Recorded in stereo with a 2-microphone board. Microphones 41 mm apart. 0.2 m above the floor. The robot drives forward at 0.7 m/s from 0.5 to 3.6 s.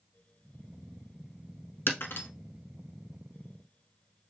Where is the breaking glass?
65° left (ahead or behind), 0.9 m; by 2.3 s 60° left (ahead or behind), 0.9 m.